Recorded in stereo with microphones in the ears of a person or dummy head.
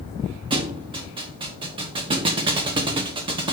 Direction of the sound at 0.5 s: 25° right (ahead or behind).